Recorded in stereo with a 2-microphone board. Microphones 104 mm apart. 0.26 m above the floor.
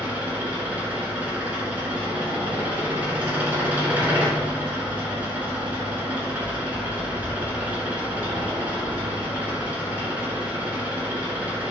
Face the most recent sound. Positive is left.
turn(degrees=-15)  # may be behind; listen again after turning